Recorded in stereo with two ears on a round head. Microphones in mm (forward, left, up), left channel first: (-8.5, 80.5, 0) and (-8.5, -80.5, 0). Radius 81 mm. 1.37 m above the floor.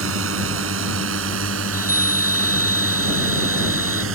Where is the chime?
15° right (ahead or behind).